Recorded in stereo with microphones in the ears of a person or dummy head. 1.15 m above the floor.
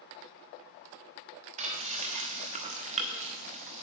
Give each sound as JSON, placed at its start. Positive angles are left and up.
{"t": 1.6, "sound": "frying", "side_deg": -30, "distance_m": 0.9}